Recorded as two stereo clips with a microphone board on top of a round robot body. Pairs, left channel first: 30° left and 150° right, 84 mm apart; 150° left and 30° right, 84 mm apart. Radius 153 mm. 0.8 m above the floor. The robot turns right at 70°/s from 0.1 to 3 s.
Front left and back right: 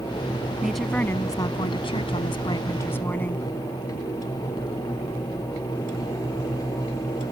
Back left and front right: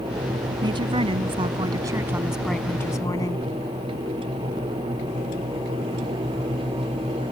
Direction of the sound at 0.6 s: 70° right.